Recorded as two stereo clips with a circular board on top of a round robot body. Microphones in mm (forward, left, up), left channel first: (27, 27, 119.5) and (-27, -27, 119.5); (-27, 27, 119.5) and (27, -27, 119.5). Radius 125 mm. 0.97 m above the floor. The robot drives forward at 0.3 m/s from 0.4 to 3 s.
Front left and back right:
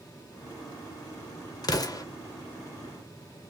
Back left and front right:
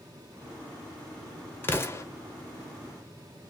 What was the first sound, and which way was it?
An explosion, 75° left.